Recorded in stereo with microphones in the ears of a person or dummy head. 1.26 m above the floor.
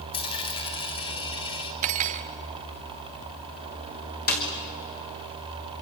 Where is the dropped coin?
30° left (ahead or behind), 1.9 m.